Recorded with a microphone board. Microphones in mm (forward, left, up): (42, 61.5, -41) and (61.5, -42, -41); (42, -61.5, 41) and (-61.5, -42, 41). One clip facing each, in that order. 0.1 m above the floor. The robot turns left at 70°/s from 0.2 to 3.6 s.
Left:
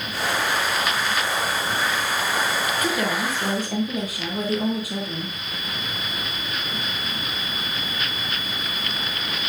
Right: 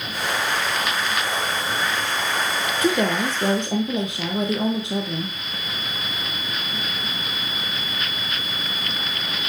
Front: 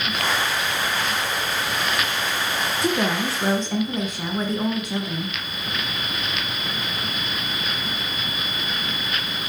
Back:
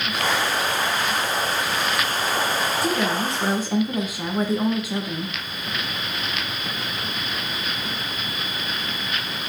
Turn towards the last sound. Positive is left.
turn(degrees=-115)